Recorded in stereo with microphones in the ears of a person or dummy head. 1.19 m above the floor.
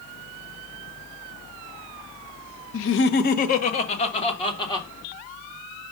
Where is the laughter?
70° left (ahead or behind), 0.7 m; by 4.9 s 20° left (ahead or behind), 2 m.